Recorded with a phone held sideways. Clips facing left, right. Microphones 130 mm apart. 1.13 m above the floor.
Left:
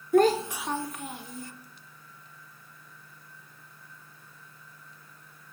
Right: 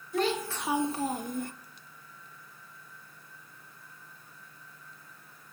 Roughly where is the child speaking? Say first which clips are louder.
Left 8 dB; left.